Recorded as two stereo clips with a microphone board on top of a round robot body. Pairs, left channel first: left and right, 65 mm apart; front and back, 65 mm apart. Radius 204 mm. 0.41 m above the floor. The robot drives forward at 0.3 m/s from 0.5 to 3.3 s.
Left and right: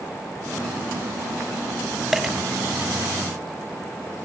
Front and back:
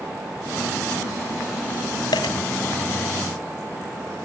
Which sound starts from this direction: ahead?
A dropped coin, at 2.1 s.